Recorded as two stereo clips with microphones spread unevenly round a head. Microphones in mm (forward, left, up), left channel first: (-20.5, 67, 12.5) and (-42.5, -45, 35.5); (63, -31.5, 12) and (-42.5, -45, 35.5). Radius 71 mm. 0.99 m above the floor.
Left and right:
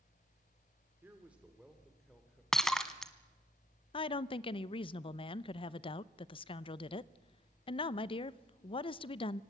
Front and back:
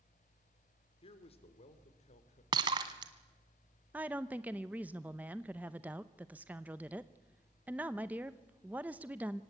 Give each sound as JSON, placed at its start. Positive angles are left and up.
{"t": 1.0, "sound": "a man speaking", "azimuth_deg": -25, "distance_m": 2.5}
{"t": 2.5, "sound": "breaking glass", "azimuth_deg": 175, "distance_m": 1.1}
{"t": 3.9, "sound": "a woman speaking", "azimuth_deg": 105, "distance_m": 0.7}